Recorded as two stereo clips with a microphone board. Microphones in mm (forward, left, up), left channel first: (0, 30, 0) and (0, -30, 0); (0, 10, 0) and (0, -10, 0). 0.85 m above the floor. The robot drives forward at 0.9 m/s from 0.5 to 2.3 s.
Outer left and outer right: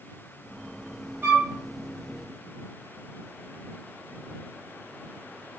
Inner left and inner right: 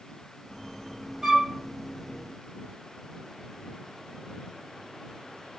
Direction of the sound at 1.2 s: 30° right (ahead or behind).